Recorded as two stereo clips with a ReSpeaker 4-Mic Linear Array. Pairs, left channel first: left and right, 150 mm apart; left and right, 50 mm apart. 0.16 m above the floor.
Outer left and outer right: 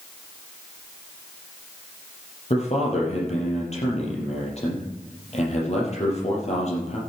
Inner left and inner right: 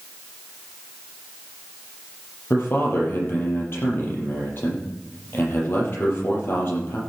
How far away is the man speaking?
About 5 m.